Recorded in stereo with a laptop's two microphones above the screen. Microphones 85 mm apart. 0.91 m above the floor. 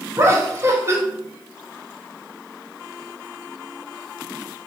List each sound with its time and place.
0.2 s laughter: 30° right (ahead or behind), 0.8 m